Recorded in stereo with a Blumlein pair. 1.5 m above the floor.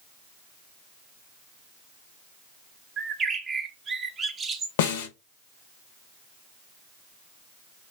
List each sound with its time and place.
3.0 s a bird: 15° right, 0.6 m
4.8 s a snare drum: 55° left, 0.7 m